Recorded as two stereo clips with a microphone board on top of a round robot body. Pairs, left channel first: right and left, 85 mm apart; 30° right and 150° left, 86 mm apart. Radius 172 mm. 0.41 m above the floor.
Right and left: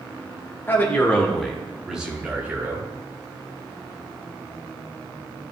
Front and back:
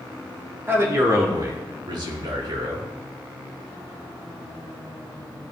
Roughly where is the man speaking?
Behind right.